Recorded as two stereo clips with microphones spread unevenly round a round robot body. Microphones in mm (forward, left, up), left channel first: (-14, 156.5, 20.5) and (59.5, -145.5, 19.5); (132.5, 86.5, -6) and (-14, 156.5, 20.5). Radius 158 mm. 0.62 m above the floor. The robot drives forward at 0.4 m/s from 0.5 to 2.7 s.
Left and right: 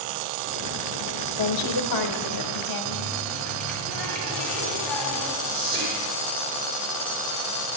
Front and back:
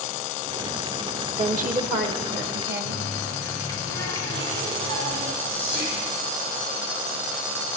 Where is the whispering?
125° right, 1.1 m.